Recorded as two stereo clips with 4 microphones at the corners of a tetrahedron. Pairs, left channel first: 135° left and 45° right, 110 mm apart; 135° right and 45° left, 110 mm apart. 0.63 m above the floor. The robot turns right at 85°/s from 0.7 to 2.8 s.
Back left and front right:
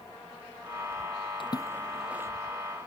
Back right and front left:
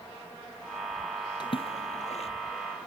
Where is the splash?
175° left; by 2.3 s 105° right.